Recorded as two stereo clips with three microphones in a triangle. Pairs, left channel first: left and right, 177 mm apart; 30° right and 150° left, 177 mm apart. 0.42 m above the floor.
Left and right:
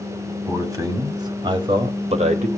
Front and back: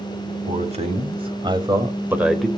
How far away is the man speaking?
About 2.5 m.